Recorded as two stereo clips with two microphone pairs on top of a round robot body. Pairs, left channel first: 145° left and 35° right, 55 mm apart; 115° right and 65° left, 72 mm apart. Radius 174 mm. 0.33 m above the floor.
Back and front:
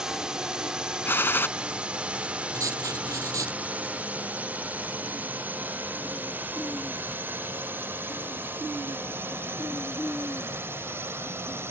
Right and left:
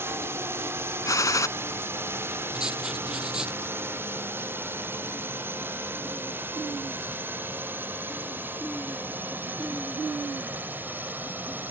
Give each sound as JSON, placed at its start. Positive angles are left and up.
{"t": 0.0, "sound": "a drone", "azimuth_deg": 30}
{"t": 1.1, "sound": "a gunshot", "azimuth_deg": -160}
{"t": 2.5, "sound": "writing", "azimuth_deg": -15}